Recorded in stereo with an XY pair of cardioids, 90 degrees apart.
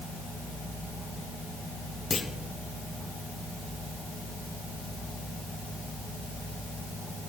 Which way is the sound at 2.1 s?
40° left.